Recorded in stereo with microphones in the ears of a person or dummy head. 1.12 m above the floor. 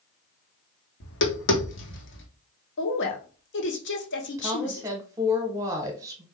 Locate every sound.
1.0 s tapping: 60° left (ahead or behind), 1.2 m
2.8 s a woman speaking: 55° left (ahead or behind), 1.2 m
4.4 s a woman speaking: 15° right (ahead or behind), 1.1 m